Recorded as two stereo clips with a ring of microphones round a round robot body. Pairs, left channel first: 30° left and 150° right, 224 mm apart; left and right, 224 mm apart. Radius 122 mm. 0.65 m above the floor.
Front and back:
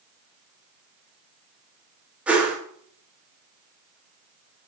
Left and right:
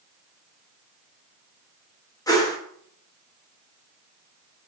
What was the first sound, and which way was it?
A whoosh, 135° left.